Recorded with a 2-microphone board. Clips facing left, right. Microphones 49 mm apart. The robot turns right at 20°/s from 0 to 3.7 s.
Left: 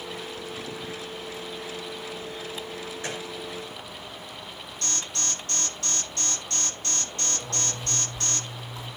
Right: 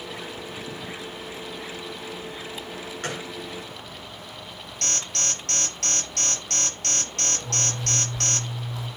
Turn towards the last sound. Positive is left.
turn(degrees=-85)